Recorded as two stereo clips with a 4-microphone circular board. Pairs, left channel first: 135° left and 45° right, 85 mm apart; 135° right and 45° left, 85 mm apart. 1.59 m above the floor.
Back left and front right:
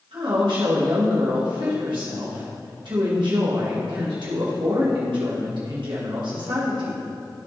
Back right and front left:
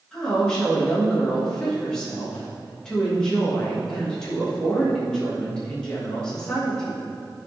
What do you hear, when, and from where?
0.1 s a woman speaking: 55° right, 2.5 m